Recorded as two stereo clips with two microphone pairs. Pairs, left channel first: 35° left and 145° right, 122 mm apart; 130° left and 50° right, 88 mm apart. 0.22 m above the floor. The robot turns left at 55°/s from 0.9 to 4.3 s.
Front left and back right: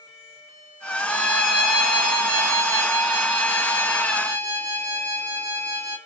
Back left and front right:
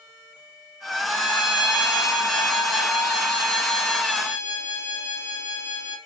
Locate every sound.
1.1 s a violin: 60° left, 1.2 m; by 6.0 s 120° right, 1.2 m